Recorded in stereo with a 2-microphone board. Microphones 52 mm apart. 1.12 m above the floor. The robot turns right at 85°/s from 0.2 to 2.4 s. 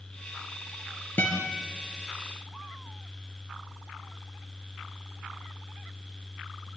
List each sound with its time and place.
1.2 s a guitar: 40° left (ahead or behind), 4 m; by 1.5 s 65° left (ahead or behind), 4 m